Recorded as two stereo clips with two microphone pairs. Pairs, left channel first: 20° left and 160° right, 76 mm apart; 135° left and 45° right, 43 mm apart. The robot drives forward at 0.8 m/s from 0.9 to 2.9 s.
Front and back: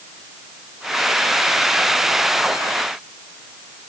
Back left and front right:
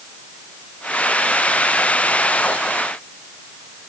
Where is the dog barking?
I don't hear a dog barking.